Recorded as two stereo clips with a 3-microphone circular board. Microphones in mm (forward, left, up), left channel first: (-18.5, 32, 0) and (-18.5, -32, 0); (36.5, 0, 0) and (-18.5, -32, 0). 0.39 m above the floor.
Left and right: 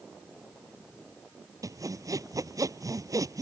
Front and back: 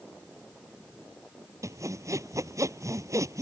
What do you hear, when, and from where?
1.6 s sawing: 115° right